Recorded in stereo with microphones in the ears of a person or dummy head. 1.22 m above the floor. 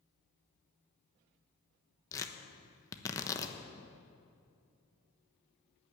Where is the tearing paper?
15° left (ahead or behind), 1.2 m.